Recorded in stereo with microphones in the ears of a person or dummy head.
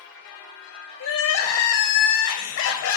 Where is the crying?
60° left (ahead or behind), 1.4 m.